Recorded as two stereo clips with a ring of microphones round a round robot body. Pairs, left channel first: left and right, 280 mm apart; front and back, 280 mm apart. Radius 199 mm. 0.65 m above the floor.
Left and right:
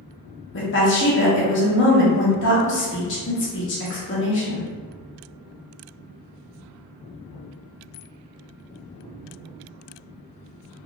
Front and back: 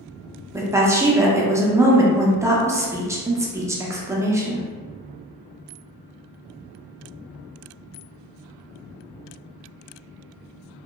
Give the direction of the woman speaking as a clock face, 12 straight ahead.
9 o'clock.